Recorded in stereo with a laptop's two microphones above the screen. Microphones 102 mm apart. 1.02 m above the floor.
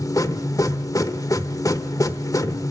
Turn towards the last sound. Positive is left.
turn(degrees=35)  # may be behind; listen again after turning